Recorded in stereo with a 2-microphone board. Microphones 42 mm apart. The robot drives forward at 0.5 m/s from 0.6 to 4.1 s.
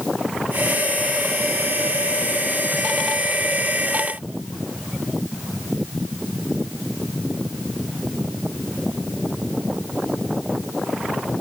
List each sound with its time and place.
Only background noise.